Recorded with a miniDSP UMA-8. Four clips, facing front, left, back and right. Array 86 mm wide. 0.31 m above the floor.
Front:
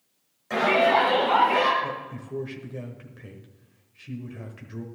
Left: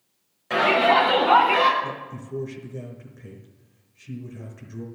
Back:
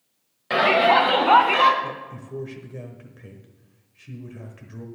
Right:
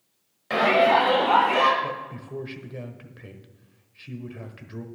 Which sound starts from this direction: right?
A man speaking, at 1.8 s.